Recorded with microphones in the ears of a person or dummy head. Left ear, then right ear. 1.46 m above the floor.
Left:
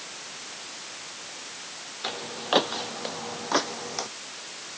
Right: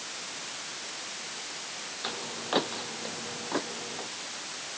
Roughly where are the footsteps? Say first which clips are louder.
Left 5 dB; centre.